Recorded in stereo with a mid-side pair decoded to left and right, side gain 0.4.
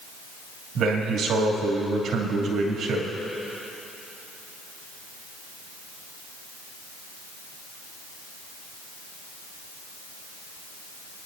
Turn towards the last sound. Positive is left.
turn(degrees=-70)